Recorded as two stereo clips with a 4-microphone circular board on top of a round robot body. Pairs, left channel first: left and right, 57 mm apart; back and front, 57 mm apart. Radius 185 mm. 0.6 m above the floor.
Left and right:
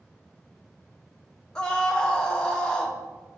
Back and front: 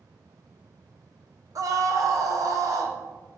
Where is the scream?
15° left, 1.5 m.